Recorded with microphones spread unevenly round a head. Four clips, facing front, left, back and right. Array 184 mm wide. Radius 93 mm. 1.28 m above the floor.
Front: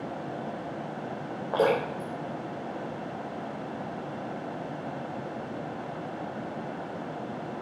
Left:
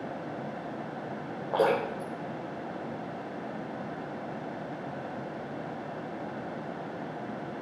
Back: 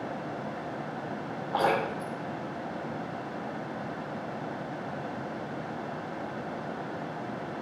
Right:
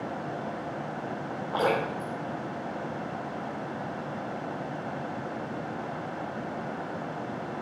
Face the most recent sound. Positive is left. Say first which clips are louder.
# left 1 dB, front 2 dB
turn(degrees=40)